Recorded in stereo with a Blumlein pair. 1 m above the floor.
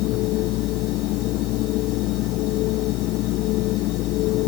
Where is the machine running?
40° left.